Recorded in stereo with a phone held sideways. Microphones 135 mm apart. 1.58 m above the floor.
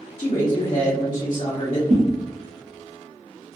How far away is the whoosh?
About 1.4 m.